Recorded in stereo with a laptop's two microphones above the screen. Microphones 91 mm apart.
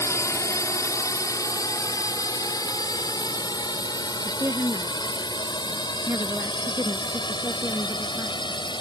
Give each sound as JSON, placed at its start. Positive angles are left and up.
{"t": 0.0, "sound": "a drone", "side_deg": 35}
{"t": 4.2, "sound": "a woman speaking", "side_deg": -35}